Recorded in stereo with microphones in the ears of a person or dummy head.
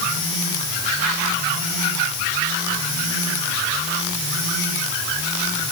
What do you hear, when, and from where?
Only background noise.